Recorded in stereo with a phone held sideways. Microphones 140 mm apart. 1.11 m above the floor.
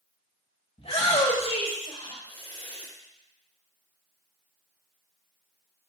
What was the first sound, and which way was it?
A shout, 50° left (ahead or behind).